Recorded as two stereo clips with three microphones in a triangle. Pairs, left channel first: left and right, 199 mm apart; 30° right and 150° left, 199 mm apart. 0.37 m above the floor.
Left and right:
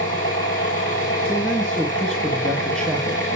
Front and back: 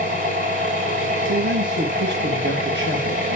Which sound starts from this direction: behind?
A man speaking, at 1.2 s.